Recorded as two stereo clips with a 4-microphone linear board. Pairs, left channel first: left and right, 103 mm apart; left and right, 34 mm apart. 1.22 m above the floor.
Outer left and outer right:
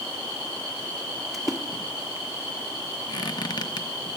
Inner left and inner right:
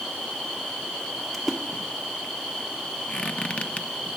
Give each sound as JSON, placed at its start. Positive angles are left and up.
{"t": 1.3, "sound": "a splash", "side_deg": 0, "distance_m": 1.1}
{"t": 3.1, "sound": "a squeak", "side_deg": 45, "distance_m": 0.8}